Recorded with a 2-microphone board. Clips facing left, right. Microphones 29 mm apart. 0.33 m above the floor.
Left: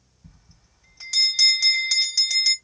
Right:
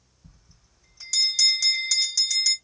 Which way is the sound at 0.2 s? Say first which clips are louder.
Left 3 dB; 30° left (ahead or behind).